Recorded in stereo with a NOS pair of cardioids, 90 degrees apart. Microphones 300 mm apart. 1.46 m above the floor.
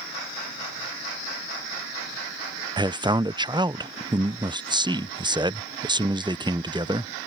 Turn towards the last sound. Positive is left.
turn(degrees=-15)